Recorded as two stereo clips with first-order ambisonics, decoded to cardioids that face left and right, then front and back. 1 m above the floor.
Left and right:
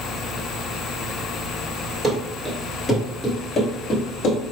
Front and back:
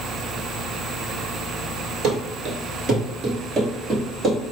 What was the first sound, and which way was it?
Running footsteps, 155° right.